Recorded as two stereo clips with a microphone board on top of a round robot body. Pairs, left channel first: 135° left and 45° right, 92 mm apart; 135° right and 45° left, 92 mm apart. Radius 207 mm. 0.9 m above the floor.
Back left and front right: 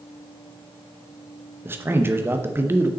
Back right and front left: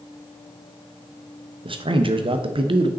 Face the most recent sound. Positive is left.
turn(degrees=25)